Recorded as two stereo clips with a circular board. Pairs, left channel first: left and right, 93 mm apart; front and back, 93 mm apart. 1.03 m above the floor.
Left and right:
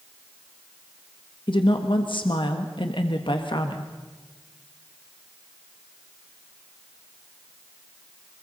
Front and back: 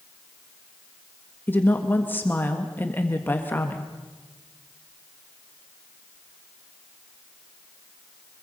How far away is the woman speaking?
About 1.4 m.